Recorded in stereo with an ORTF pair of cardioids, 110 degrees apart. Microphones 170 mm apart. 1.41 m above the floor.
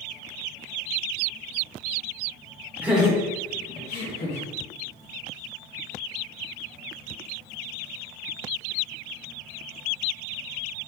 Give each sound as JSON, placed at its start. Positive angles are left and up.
{"t": 2.8, "sound": "laughter", "azimuth_deg": -10, "distance_m": 1.3}